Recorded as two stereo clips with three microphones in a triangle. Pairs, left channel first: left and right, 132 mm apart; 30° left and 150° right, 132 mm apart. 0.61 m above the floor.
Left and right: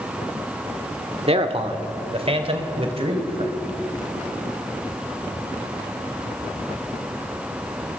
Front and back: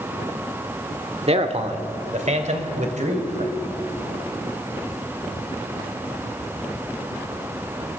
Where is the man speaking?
120° right, 1.5 m; by 3.5 s 130° right, 3.5 m.